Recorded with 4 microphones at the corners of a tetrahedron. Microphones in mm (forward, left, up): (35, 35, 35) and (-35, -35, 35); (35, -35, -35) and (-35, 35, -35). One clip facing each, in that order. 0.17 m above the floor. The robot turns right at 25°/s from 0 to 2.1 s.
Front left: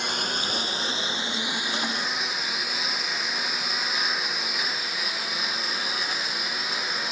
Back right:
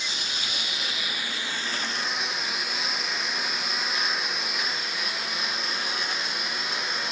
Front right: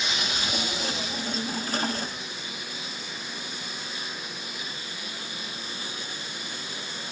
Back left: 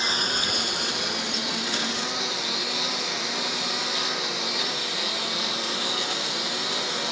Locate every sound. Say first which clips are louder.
0.0 s a lawn mower: front left 6 dB, back left 3 dB; 80° left; by 7.1 s 135° left